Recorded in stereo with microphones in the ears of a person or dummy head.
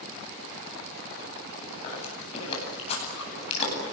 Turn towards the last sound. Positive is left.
turn(degrees=35)  # may be behind; listen again after turning